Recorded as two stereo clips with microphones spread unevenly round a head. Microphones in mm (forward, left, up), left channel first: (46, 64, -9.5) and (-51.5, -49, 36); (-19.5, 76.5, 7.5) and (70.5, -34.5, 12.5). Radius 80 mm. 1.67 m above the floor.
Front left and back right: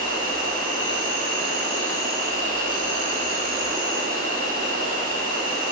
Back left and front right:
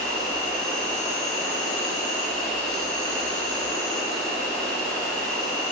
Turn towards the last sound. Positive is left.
turn(degrees=-145)